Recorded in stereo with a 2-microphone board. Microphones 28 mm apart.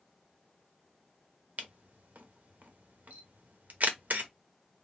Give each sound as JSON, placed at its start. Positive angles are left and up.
{"t": 1.6, "sound": "a camera shutter", "side_deg": -80, "distance_m": 0.7}